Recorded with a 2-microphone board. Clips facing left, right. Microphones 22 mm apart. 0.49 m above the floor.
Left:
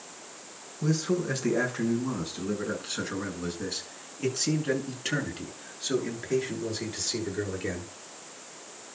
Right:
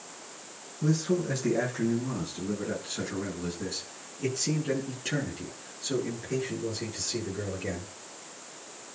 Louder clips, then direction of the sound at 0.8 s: Even; 15° left (ahead or behind).